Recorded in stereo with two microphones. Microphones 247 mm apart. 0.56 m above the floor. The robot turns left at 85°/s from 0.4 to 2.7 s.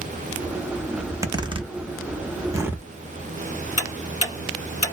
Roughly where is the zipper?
Centre.